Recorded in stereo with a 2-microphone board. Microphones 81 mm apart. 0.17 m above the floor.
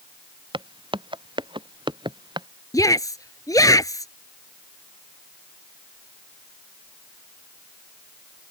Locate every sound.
0.5 s footsteps: 85° right; by 2.5 s 65° right (ahead or behind)
2.7 s a shout: 45° left (ahead or behind)